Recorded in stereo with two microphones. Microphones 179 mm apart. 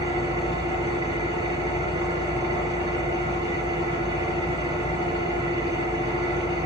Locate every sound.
0.0 s an engine running: 30° right (ahead or behind), 3 m